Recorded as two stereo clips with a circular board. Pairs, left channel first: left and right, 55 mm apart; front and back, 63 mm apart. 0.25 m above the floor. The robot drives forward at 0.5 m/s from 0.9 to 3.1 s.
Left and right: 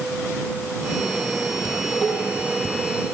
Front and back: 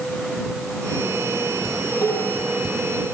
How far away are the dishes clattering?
About 6 m.